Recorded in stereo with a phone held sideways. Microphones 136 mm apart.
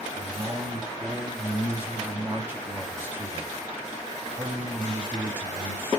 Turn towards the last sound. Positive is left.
turn(degrees=-15)  # may be behind; listen again after turning